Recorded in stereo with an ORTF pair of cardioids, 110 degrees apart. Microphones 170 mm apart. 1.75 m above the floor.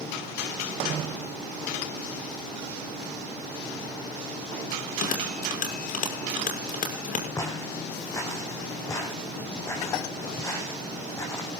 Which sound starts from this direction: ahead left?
A bell, at 4.7 s.